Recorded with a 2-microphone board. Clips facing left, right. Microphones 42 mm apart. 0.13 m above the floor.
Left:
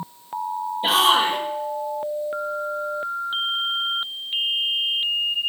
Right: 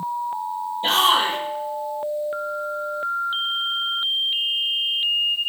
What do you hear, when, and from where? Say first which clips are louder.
0.8 s a shout: left 1 dB; 5° left (ahead or behind), 3 m